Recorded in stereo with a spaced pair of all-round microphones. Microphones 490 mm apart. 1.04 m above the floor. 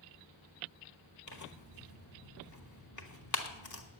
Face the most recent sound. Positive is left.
turn(degrees=35)  # may be behind; listen again after turning